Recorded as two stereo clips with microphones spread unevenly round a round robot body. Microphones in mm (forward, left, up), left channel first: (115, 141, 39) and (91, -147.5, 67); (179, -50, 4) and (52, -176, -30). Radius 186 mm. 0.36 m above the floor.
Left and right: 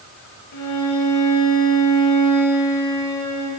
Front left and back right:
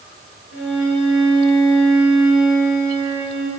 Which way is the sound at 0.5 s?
65° left.